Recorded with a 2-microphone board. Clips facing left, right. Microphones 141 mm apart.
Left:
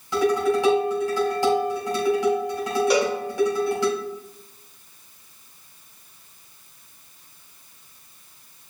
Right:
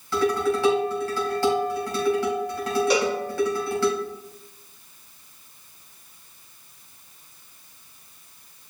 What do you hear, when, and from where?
0.1 s dishes clattering: 20° left (ahead or behind), 3.5 m
2.9 s a cowbell: centre (ahead or behind), 3 m